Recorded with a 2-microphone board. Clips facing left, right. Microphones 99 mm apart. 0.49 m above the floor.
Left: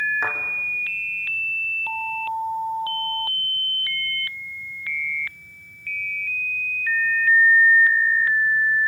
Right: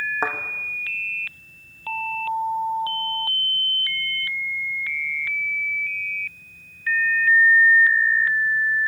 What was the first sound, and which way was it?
A thud, 35° right (ahead or behind).